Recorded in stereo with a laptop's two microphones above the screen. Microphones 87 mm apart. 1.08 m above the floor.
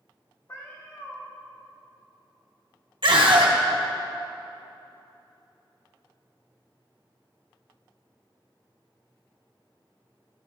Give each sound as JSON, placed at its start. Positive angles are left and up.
{"t": 0.5, "sound": "a cat meowing", "side_deg": 35, "distance_m": 1.5}
{"t": 3.0, "sound": "a scream", "side_deg": -65, "distance_m": 1.7}